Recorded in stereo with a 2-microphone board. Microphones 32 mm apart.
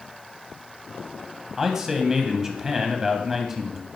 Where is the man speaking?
15° right (ahead or behind), 1.0 m.